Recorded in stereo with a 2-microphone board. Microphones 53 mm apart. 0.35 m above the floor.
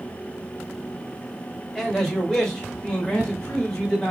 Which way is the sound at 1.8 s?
5° left (ahead or behind).